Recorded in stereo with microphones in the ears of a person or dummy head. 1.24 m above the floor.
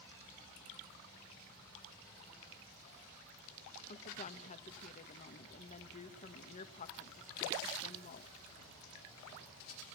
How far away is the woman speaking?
About 1.6 m.